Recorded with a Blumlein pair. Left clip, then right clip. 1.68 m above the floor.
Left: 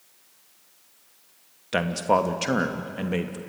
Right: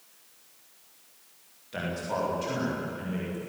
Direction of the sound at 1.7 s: 35° left.